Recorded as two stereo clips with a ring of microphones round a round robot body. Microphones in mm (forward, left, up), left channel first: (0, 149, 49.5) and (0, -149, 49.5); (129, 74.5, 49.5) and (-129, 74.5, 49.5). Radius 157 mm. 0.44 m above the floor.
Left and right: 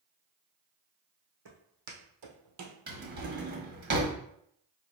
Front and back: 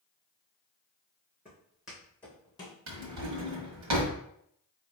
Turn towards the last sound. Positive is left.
turn(degrees=-150)